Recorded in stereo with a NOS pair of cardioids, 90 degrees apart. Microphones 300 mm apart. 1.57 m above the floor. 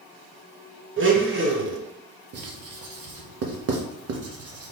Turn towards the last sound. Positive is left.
turn(degrees=-55)